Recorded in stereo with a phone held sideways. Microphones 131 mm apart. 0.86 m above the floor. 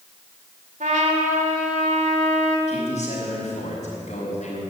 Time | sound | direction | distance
0.8 | a trumpet | 75° right (ahead or behind) | 2 m
2.7 | a man speaking | 60° left (ahead or behind) | 5 m